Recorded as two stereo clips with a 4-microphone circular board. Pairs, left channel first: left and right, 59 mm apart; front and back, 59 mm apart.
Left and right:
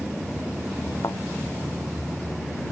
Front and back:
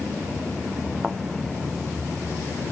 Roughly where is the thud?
Left.